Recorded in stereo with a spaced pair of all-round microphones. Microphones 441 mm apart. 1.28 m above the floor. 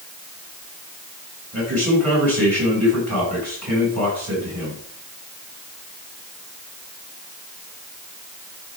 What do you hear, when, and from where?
1.5 s a man speaking: 35° right (ahead or behind), 6.5 m